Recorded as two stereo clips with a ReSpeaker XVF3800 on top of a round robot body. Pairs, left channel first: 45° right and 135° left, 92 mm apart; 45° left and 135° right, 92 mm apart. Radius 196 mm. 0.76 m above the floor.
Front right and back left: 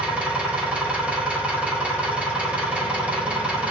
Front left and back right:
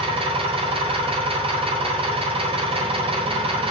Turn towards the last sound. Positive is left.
turn(degrees=-145)